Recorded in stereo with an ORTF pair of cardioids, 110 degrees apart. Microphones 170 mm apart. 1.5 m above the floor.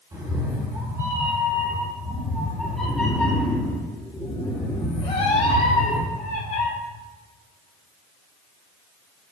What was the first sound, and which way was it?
A cat meowing, 25° right.